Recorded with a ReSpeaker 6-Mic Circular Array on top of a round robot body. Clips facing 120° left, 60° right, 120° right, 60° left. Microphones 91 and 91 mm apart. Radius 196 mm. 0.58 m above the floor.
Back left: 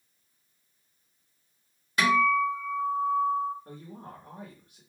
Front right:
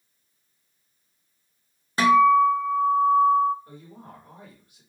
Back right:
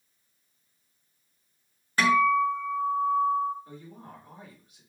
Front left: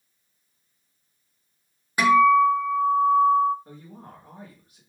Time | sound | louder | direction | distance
2.0 | a guitar | front right 7 dB, front left 6 dB | 15° right | 1.0 m
3.6 | a woman speaking | back left 1 dB, front left 1 dB | 95° left | 1.6 m